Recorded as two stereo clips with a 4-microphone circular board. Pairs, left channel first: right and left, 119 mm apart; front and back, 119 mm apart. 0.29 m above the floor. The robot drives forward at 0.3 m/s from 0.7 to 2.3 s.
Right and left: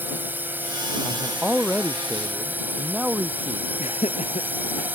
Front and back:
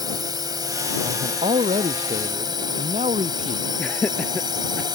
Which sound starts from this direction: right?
Laughter, at 3.8 s.